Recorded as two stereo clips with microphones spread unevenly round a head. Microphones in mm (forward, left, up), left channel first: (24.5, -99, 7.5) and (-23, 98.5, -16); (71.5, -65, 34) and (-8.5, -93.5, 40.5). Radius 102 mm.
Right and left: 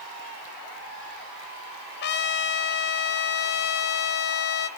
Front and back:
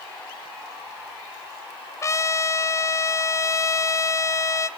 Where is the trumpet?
35° right, 1.3 m.